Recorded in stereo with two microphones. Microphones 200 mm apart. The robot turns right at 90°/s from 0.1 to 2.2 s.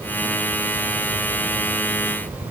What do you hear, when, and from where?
Only background noise.